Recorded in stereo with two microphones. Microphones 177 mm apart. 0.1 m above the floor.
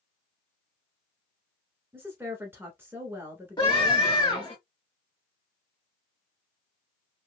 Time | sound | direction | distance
1.9 | a woman speaking | 10° right (ahead or behind) | 1.2 m
3.6 | a scream | 25° left (ahead or behind) | 2 m